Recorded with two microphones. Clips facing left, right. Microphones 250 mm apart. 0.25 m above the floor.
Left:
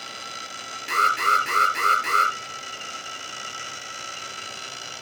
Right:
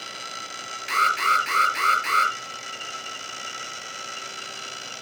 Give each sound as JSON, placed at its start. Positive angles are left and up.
{"t": 0.9, "sound": "an alarm", "side_deg": 50, "distance_m": 4.5}